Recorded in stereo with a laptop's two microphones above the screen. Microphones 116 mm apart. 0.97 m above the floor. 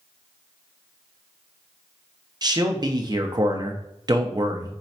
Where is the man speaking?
35° right (ahead or behind), 0.7 m.